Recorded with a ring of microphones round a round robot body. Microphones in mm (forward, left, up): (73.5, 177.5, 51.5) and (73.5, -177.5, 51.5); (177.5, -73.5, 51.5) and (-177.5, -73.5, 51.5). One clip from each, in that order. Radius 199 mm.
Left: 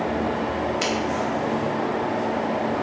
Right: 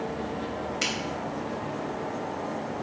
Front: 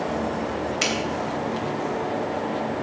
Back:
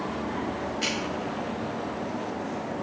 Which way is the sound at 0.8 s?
Straight ahead.